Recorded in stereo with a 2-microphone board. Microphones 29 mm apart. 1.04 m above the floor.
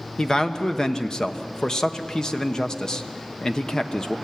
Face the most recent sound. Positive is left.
turn(degrees=25)  # may be behind; listen again after turning